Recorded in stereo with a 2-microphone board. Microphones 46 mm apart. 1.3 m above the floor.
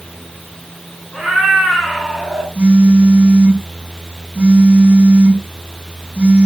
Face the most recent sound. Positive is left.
turn(degrees=-30)  # may be behind; listen again after turning